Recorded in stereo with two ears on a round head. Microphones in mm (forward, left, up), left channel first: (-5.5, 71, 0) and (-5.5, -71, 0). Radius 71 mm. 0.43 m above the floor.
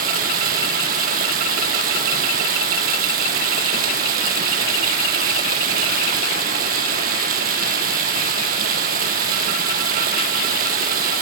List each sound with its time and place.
0.0 s running water: 60° right (ahead or behind), 1.2 m